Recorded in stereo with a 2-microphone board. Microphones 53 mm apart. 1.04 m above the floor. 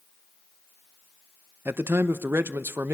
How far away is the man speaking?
About 0.9 m.